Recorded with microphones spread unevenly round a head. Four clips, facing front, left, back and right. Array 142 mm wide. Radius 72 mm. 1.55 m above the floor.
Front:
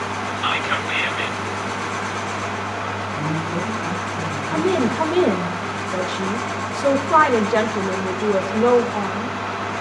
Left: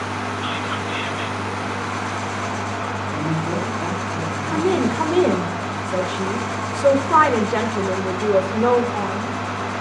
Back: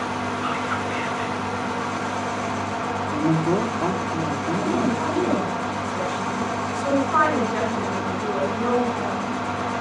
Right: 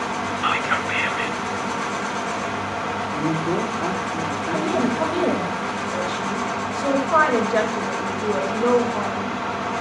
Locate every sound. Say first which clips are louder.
0.4 s whispering: right 3 dB, front 2 dB; 35° right, 1.2 m
3.1 s a woman speaking: right 2 dB, back 6 dB; straight behind, 4.5 m
4.5 s a woman speaking: left 3 dB, front 4 dB; 50° left, 7 m